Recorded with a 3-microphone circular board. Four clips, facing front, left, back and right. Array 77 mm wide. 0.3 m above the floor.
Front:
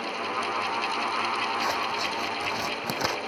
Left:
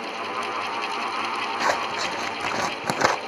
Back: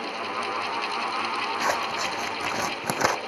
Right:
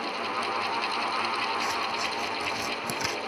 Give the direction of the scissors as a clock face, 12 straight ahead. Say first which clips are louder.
Left 5 dB, back 2 dB; 8 o'clock.